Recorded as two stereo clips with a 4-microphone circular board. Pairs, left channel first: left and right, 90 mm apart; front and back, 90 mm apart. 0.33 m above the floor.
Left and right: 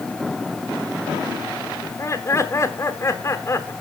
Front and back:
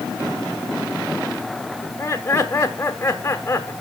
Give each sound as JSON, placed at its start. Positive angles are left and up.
{"t": 1.8, "sound": "laughter", "azimuth_deg": 55, "distance_m": 1.5}